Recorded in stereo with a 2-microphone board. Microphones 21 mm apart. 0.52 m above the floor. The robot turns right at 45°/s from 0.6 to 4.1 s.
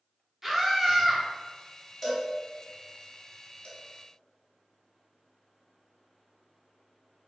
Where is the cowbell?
15° left (ahead or behind), 0.8 m; by 3.7 s 75° left (ahead or behind), 0.8 m.